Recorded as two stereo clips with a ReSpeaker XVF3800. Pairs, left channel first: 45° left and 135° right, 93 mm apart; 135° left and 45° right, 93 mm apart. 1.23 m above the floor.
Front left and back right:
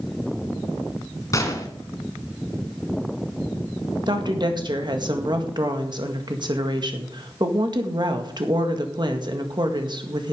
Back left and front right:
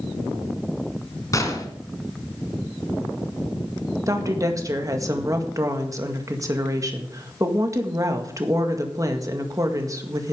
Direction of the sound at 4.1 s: 100° right.